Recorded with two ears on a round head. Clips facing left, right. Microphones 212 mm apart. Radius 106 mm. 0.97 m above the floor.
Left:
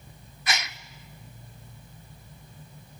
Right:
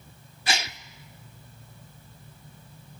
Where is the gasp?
25° right (ahead or behind), 0.6 m.